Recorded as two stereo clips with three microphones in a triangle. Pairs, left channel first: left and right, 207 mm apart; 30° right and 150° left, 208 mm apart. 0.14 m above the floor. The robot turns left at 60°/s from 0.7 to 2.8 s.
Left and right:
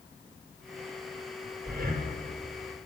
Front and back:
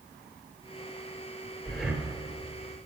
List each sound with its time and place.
1.6 s breathing: 110° right, 0.7 m; by 2.1 s 140° right, 0.7 m